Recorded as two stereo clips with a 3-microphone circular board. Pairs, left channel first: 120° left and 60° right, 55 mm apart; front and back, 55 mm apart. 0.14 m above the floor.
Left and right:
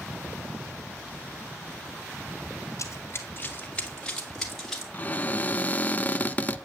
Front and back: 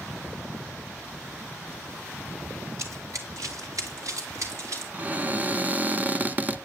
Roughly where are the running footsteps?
Behind left.